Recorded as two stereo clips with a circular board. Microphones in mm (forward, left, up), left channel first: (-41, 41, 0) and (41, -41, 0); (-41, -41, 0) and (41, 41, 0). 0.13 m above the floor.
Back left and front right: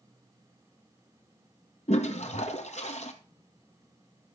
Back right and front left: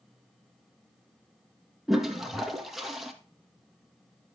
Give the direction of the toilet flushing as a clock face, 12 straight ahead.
8 o'clock.